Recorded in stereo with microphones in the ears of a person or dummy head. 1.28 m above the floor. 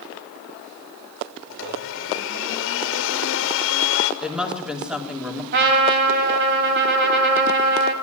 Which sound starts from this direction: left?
A blender, at 1.5 s.